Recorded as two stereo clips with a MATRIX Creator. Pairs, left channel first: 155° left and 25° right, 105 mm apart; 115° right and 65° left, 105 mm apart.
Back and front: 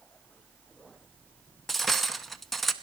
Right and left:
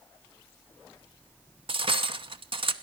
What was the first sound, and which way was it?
Cutlery clinking, 70° left.